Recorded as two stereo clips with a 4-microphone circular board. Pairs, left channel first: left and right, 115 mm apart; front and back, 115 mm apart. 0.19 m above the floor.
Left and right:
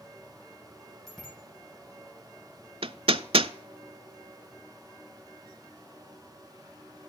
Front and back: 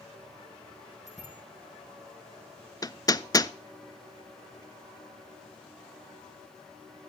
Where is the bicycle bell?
5° left, 5.5 m.